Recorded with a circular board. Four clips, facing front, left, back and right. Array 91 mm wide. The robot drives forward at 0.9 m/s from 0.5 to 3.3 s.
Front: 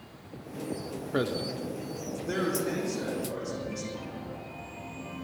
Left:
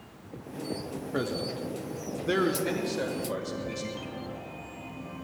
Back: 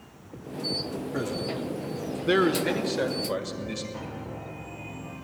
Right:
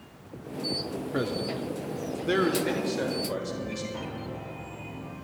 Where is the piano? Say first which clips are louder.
Right 2 dB, back 2 dB; 130° right, 1.2 m.